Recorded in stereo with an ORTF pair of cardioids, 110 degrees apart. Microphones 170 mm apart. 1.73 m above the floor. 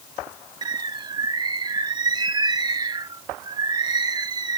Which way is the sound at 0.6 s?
25° right.